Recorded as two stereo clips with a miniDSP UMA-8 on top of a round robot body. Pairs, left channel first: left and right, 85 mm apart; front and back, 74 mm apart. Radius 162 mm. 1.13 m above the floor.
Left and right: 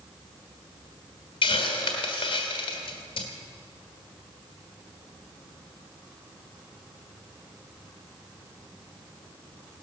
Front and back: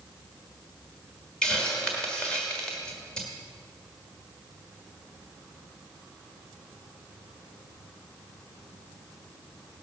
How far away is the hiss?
About 1.3 m.